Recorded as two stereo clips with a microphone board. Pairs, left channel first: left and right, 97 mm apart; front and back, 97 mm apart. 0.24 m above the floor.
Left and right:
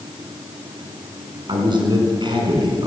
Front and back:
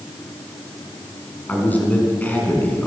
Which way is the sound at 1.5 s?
70° right.